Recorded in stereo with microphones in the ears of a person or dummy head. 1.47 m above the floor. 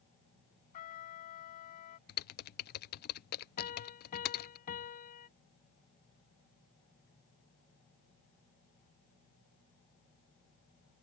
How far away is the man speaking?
No man speaking in this recording.